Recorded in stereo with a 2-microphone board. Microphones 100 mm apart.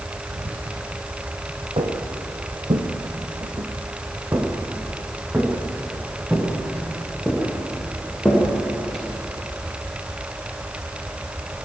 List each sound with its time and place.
0.3 s whispering: 75° right (ahead or behind), 5 m
1.8 s footsteps: 70° right (ahead or behind), 2.5 m; by 9.0 s 5° left (ahead or behind), 8 m